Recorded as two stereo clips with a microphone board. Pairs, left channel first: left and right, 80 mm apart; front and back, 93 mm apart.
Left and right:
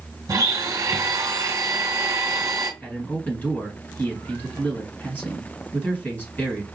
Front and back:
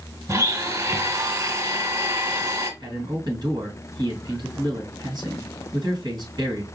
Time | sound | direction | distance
0.3 | a blender | 130° right | 1.5 m
2.8 | a man speaking | 150° left | 1.8 m